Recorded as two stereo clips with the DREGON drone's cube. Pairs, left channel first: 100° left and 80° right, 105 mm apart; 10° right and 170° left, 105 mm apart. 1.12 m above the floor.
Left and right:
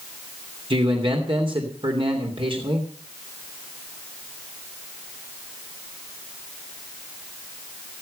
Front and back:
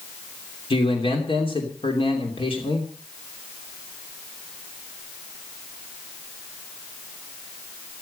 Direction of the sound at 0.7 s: 45° right.